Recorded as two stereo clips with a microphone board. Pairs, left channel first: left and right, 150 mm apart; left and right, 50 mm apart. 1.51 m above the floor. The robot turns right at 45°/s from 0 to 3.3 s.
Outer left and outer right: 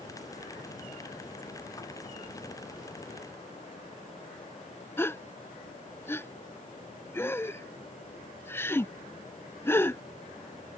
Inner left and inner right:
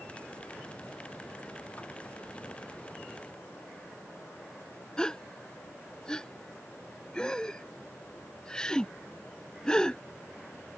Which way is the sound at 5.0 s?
15° left (ahead or behind).